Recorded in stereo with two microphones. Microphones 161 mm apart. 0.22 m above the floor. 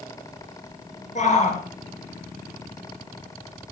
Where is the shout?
45° left (ahead or behind), 4.5 m.